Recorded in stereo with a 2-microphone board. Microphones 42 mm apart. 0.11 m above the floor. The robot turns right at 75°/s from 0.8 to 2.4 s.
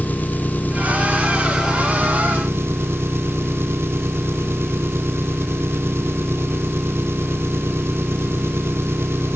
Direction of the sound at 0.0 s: 135° left.